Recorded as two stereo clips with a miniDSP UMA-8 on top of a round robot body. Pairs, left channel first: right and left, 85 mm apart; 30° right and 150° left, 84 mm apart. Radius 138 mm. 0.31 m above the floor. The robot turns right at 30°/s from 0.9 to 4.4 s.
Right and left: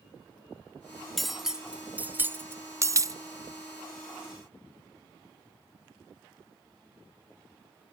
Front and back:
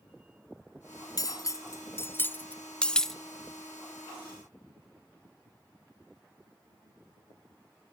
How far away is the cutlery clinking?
About 0.6 m.